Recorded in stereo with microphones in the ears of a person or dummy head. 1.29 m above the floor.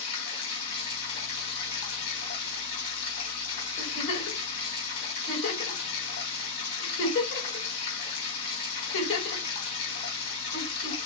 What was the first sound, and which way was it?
Running water, 60° left (ahead or behind).